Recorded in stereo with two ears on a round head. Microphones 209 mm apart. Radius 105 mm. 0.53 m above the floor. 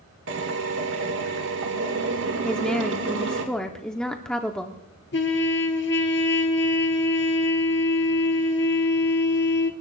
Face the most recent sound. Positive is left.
turn(degrees=50)  # may be behind; listen again after turning